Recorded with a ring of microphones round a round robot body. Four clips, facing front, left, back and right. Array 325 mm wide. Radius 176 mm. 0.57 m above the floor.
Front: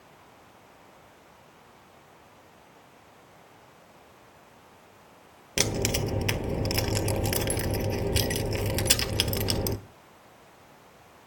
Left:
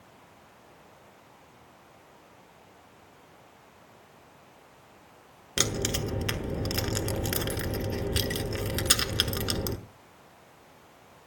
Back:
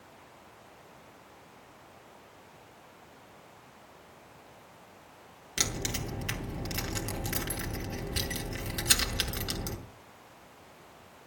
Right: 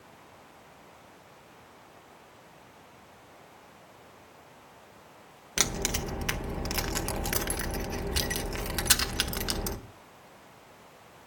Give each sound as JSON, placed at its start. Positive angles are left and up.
{"t": 5.6, "sound": "keys jangling", "azimuth_deg": 30, "distance_m": 1.3}